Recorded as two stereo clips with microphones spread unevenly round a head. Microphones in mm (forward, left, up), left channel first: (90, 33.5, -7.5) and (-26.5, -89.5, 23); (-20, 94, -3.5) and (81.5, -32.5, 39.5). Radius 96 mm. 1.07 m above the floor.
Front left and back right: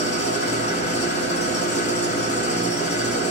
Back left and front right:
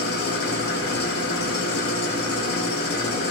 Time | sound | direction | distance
0.0 | an engine running | 105° left | 0.9 m